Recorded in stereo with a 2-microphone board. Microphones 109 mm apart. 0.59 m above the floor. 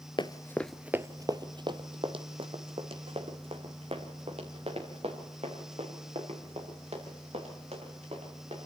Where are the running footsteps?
45° left (ahead or behind), 0.7 m; by 8.7 s 65° right (ahead or behind), 8 m.